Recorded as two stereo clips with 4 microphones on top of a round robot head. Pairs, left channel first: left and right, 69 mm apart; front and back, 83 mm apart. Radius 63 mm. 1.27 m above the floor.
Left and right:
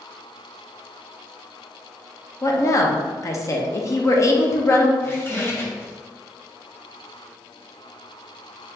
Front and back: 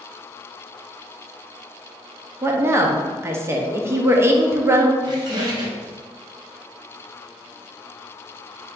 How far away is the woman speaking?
About 0.8 m.